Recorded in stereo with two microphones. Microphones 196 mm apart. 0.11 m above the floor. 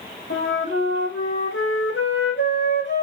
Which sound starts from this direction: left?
A flute, at 0.3 s.